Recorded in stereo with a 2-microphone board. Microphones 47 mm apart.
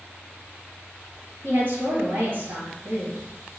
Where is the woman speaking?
45° right (ahead or behind), 1.9 m.